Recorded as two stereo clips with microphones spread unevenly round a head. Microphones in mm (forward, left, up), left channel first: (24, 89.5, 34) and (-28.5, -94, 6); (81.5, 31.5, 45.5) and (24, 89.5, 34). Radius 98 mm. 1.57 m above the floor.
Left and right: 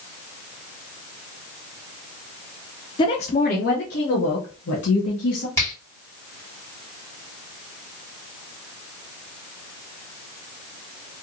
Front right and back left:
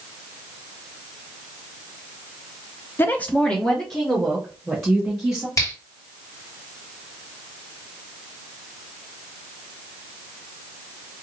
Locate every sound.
3.0 s a woman speaking: 10° left, 0.5 m; by 5.5 s 50° left, 2 m
5.6 s a finger snap: straight ahead, 2.5 m